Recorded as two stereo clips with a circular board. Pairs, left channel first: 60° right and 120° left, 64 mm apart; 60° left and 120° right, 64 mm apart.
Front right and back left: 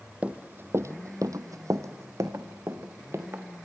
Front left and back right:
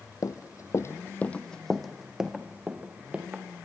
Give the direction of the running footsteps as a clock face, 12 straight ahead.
10 o'clock.